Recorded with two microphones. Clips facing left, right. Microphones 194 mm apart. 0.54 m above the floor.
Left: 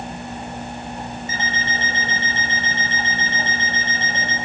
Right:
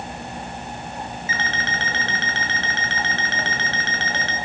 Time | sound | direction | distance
1.3 | an alarm clock | 80° right | 5 m